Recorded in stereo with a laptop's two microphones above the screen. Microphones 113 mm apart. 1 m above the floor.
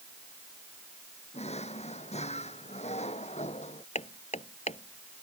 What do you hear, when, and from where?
1.3 s a drawer: 70° left (ahead or behind)
4.0 s hammering: 75° left (ahead or behind)